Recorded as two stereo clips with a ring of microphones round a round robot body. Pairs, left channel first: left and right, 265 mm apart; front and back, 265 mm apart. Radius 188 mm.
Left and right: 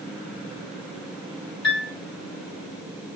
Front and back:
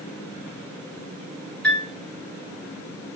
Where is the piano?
85° left, 1.8 m.